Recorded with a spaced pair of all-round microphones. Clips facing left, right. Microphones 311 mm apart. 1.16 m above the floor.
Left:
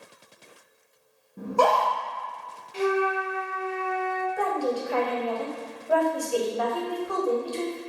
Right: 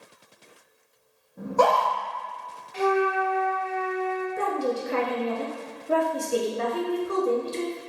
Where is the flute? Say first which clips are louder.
Right 1 dB; 40° left (ahead or behind), 0.8 m.